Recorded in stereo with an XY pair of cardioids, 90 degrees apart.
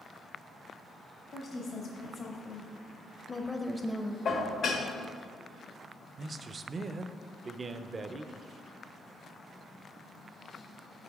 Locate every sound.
1.3 s a woman speaking: 70° left, 1.4 m; by 4.2 s 15° right, 0.6 m
4.2 s dishes clattering: 70° left, 1.1 m
6.2 s a man speaking: 40° right, 0.5 m